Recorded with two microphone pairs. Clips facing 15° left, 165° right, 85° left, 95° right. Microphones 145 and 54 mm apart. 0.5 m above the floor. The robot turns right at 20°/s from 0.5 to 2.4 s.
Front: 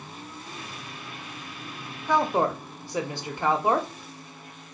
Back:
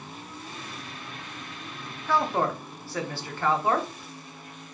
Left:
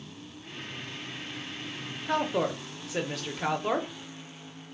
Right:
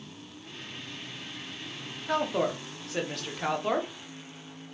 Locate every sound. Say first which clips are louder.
2.1 s a woman speaking: front 2 dB, even; 5° left, 0.8 m; by 3.9 s 10° left, 0.8 m